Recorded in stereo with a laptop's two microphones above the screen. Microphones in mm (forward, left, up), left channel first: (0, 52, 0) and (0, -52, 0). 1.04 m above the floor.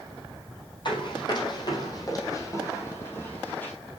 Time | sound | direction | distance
0.8 | running footsteps | 50° left (ahead or behind) | 3 m